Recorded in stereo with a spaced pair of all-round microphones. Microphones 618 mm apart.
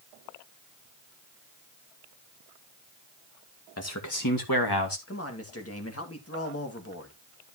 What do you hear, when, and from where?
3.8 s a man speaking: 25° left (ahead or behind), 1.9 m; by 5.0 s 40° left (ahead or behind), 2 m
5.1 s a man speaking: 20° left (ahead or behind), 2 m